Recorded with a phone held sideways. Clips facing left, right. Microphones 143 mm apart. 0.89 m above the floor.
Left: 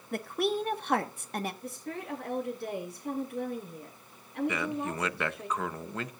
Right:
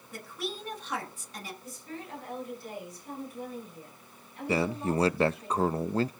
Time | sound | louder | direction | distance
0.1 | a woman speaking | left 9 dB | 60° left (ahead or behind) | 1.3 m
1.6 | a woman speaking | left 4 dB | 75° left (ahead or behind) | 9.5 m
4.5 | a man speaking | right 4 dB | 35° right (ahead or behind) | 0.5 m